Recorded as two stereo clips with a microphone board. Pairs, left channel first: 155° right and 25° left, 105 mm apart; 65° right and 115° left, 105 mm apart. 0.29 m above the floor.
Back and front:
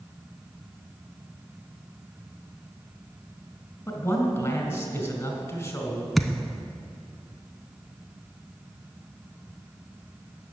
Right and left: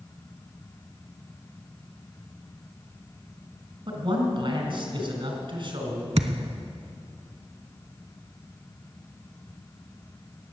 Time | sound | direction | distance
3.9 | a man speaking | 140° left | 2.5 m
6.2 | a thud | 115° left | 0.7 m